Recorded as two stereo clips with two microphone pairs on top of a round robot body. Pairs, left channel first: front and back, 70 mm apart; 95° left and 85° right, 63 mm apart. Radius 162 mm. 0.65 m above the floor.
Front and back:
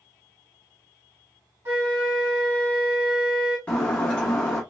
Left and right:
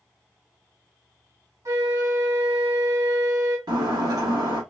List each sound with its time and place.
1.6 s a flute: 125° right, 1.8 m
3.7 s breaking glass: 75° right, 1.1 m